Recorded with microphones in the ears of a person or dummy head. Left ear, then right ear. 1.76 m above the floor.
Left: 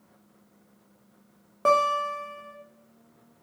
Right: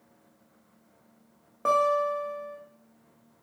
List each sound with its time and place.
1.6 s a guitar: 10° left (ahead or behind), 0.7 m